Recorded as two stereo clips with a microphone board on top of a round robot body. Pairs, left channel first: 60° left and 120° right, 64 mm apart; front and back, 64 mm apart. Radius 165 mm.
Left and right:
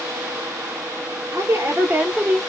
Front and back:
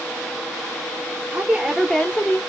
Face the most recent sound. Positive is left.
turn(degrees=-45)